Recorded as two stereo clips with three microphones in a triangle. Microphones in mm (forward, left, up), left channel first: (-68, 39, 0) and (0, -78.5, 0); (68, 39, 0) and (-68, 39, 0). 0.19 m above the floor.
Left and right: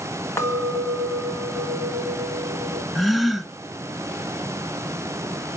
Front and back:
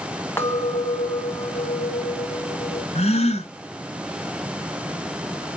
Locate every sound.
0.4 s a clink: 65° left, 1.2 m
3.0 s a gasp: 30° left, 1.4 m